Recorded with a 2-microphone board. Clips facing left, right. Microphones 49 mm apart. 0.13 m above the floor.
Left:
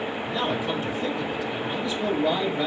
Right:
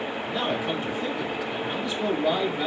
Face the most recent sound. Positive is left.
turn(degrees=10)  # may be behind; listen again after turning